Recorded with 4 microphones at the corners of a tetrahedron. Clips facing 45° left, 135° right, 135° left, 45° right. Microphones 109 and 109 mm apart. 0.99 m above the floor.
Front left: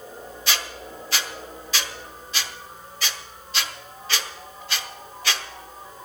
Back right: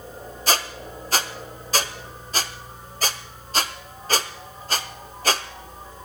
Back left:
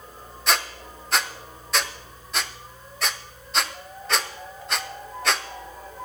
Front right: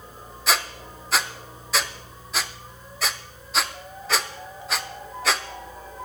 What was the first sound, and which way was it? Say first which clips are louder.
A squeak: back right 5 dB, even; 135° right.